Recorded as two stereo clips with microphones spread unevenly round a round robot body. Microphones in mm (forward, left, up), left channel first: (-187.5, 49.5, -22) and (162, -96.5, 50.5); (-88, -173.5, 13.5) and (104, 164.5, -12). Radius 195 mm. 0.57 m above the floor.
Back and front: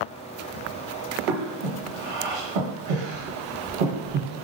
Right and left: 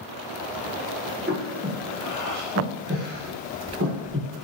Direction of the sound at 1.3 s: Straight ahead.